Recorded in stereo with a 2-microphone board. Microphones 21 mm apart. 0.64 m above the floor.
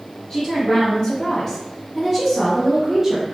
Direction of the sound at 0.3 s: 40° left (ahead or behind).